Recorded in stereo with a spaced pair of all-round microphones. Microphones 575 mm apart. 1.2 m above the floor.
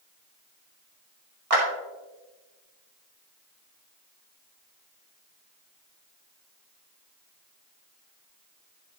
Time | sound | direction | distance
1.5 | a clap | 75° right (ahead or behind) | 2.5 m